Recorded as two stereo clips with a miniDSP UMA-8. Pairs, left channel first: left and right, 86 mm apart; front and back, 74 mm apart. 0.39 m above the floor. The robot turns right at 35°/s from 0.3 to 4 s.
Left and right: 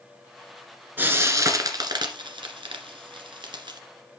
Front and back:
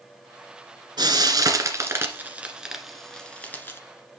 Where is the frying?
160° right, 1.7 m; by 3.8 s 60° right, 1.7 m.